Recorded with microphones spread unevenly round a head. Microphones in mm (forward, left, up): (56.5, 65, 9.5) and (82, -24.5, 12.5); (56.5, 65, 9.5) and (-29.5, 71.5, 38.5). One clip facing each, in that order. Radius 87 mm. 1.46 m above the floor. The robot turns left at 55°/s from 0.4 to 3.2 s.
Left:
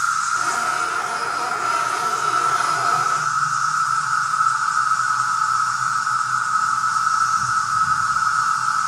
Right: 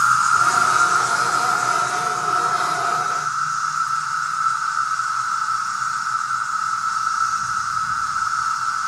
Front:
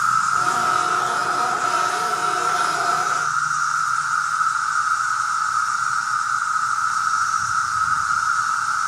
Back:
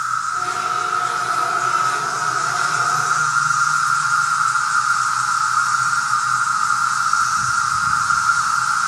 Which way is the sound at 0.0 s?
35° right.